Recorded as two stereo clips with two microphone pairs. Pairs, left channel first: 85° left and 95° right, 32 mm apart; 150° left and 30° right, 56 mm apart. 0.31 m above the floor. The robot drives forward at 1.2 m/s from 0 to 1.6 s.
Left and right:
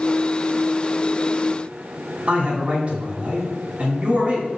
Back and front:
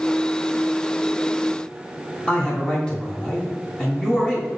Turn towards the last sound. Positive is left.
turn(degrees=-145)